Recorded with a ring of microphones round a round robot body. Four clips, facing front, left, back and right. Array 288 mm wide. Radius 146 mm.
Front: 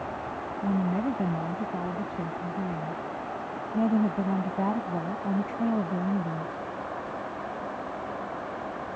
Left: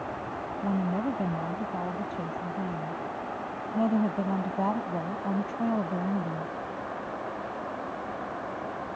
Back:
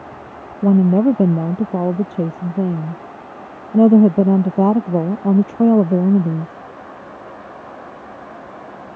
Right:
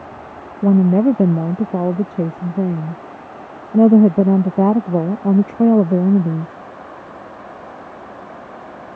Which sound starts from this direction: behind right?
A woman speaking, at 0.6 s.